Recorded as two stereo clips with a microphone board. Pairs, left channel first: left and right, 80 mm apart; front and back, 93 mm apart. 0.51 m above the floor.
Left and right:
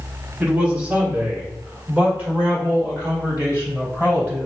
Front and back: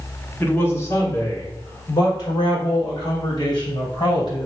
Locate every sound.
0.4 s a man speaking: 40° right, 1.3 m; by 4.5 s 15° right, 3.5 m